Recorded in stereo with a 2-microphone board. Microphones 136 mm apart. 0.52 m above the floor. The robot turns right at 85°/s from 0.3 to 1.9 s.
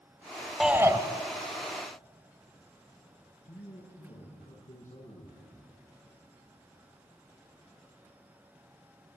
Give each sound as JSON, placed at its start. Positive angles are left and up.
{"t": 0.6, "sound": "a shout", "azimuth_deg": 180, "distance_m": 2.5}
{"t": 3.5, "sound": "a man speaking", "side_deg": 70, "distance_m": 8.0}